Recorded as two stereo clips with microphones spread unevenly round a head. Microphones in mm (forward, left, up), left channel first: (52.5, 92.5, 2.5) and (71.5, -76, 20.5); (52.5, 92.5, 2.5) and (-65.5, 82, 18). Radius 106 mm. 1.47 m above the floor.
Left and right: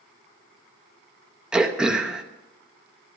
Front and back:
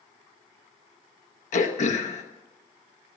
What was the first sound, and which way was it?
Throat clearing, straight ahead.